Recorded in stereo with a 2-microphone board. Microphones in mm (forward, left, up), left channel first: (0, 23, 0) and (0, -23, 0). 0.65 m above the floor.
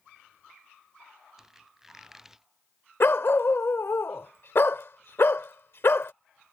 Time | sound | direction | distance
1.4 | a squeak | 10° right (ahead or behind) | ?
3.0 | a dog barking | 60° left (ahead or behind) | ?